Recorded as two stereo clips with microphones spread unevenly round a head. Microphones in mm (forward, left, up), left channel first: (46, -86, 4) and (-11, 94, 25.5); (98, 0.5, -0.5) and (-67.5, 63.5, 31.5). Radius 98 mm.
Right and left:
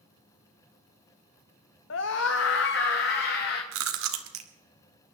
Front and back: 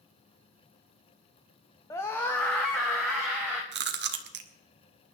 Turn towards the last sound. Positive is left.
turn(degrees=135)